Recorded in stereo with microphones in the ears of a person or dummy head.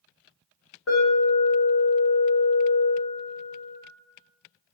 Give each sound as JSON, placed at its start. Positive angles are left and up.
{"t": 0.9, "sound": "an alarm", "side_deg": 90, "distance_m": 1.2}